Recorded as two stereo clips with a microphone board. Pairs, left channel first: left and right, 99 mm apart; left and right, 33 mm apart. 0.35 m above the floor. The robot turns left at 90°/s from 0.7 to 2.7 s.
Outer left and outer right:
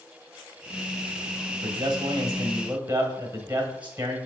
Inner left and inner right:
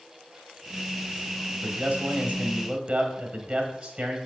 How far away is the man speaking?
About 1.4 m.